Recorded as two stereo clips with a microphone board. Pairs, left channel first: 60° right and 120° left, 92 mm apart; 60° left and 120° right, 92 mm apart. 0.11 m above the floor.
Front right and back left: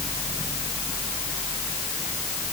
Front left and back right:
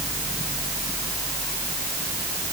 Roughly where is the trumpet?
No trumpet in this recording.